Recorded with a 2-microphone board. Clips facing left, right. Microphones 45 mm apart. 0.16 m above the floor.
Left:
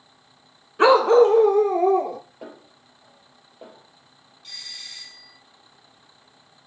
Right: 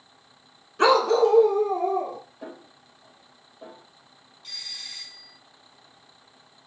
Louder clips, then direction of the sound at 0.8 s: Left 5 dB; 10° left (ahead or behind).